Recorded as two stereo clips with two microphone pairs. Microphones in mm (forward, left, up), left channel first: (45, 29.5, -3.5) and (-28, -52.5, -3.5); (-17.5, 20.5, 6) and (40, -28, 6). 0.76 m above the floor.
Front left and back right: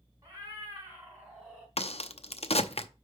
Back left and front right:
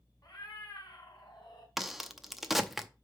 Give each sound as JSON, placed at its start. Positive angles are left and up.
{"t": 0.2, "sound": "a cat meowing", "azimuth_deg": 170, "distance_m": 3.5}
{"t": 1.8, "sound": "a crack", "azimuth_deg": 45, "distance_m": 0.7}